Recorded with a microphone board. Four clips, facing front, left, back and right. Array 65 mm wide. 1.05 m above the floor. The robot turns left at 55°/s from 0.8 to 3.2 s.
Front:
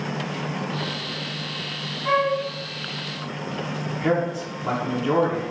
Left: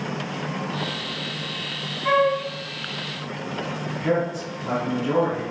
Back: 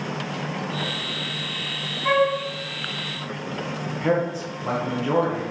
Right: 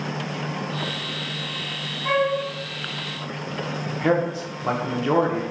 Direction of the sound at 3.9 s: 90° right.